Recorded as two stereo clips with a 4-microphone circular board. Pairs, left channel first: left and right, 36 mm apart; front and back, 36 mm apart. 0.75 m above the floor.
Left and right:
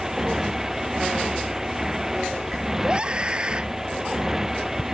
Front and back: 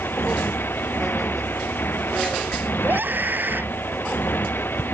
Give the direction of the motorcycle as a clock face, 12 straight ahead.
12 o'clock.